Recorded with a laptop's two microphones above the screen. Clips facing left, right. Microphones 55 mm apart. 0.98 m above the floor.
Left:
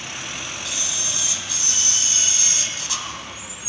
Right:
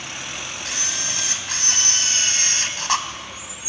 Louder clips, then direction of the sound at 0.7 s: Right 2 dB; 55° right (ahead or behind).